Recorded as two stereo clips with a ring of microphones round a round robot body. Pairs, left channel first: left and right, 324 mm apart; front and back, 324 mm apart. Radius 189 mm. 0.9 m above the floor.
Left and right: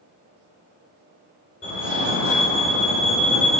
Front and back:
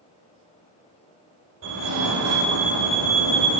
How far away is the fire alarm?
About 6.5 m.